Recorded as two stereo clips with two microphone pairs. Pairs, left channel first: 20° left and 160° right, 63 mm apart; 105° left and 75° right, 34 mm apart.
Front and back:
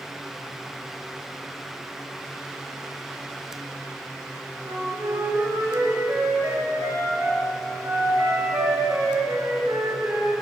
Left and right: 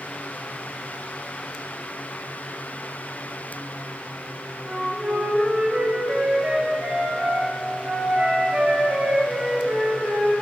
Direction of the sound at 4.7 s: 120° right.